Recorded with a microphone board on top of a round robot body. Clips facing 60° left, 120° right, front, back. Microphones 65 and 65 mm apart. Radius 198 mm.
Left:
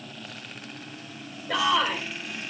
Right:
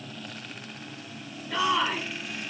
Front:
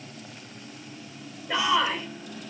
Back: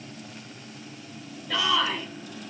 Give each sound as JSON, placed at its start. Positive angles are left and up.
{"t": 1.5, "sound": "a shout", "azimuth_deg": 70, "distance_m": 3.0}